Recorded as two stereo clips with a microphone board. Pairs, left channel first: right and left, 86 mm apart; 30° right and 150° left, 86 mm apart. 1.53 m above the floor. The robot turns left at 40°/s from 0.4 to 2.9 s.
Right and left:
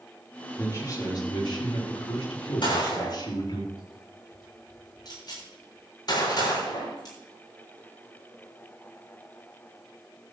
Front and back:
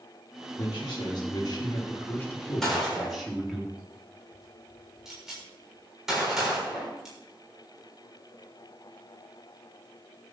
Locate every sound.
0.6 s a man speaking: 30° right, 4 m; by 3.6 s 125° right, 4 m
2.6 s a gunshot: 115° right, 6.5 m; by 7.2 s 125° right, 6.5 m